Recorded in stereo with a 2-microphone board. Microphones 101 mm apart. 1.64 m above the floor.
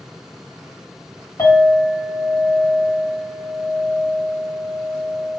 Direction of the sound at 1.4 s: 30° left (ahead or behind).